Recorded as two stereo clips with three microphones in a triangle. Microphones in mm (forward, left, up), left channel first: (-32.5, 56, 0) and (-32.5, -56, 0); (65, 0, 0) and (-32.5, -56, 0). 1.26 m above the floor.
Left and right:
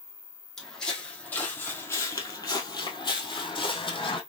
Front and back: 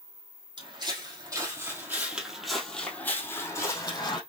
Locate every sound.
0.6 s footsteps: 175° left, 2 m; by 4.2 s 65° left, 2 m